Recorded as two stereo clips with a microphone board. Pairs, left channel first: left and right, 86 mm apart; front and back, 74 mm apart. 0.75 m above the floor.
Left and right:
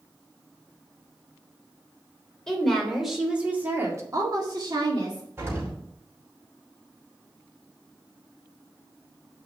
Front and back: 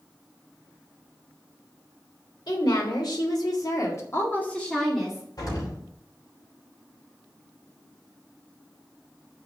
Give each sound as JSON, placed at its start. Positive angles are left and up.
{"t": 2.5, "sound": "a woman speaking", "azimuth_deg": 5, "distance_m": 3.0}
{"t": 5.4, "sound": "an explosion", "azimuth_deg": -30, "distance_m": 5.0}